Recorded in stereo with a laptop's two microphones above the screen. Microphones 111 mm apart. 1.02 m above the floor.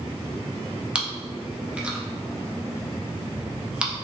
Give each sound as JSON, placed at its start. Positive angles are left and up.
{"t": 0.9, "sound": "chewing", "side_deg": -10, "distance_m": 0.7}